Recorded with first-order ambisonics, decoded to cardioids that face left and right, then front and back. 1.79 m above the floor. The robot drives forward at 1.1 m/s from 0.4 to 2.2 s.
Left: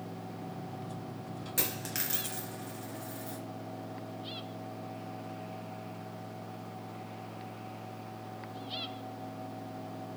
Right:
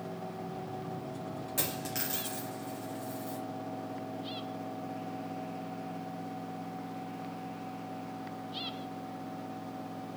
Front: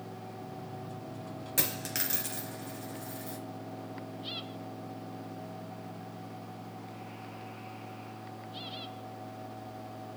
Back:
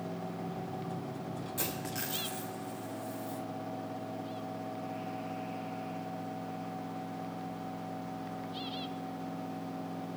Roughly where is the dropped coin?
Ahead.